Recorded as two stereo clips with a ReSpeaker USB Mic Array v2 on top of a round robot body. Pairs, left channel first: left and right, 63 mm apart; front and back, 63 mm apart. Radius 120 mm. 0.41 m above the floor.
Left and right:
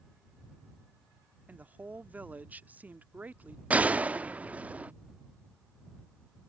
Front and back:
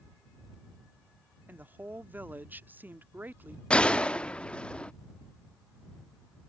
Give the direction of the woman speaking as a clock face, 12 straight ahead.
5 o'clock.